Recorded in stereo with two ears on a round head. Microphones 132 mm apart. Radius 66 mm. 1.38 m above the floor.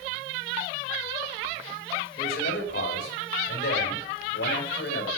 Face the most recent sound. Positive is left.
turn(degrees=85)